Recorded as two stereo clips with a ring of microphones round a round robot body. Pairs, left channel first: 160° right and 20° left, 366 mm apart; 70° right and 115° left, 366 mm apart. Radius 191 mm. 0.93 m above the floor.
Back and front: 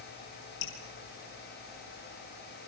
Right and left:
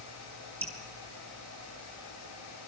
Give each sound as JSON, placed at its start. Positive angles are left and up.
{"t": 0.6, "sound": "dripping", "azimuth_deg": -155, "distance_m": 5.5}